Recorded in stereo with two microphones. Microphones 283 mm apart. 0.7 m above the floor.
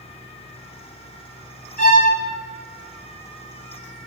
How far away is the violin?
About 0.9 m.